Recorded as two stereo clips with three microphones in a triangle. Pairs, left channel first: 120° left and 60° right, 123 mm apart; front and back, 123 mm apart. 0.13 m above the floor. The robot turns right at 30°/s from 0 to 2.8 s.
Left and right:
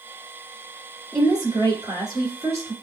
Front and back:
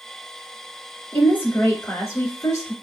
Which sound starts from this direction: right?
A woman speaking, at 1.1 s.